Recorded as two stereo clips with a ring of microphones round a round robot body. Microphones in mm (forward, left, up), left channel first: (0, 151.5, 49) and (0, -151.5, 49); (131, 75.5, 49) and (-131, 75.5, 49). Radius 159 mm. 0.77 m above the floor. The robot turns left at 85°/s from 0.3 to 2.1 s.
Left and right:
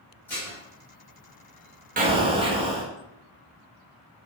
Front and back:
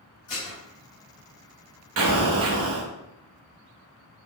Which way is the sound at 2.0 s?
150° right.